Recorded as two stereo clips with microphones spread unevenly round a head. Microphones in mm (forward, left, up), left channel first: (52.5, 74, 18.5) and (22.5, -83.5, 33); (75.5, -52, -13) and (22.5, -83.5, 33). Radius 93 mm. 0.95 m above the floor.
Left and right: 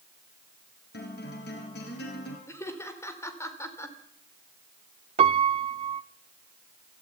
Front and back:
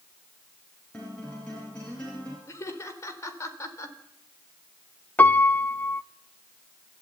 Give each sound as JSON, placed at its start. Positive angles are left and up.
{"t": 0.9, "sound": "a guitar", "azimuth_deg": 115, "distance_m": 6.0}
{"t": 2.5, "sound": "laughter", "azimuth_deg": 5, "distance_m": 4.0}
{"t": 5.2, "sound": "a piano", "azimuth_deg": -60, "distance_m": 0.8}